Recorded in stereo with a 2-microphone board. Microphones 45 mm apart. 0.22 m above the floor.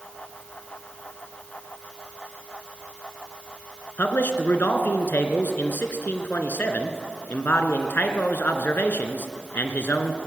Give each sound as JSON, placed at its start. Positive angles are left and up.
{"t": 4.0, "sound": "a man speaking", "side_deg": 50, "distance_m": 2.0}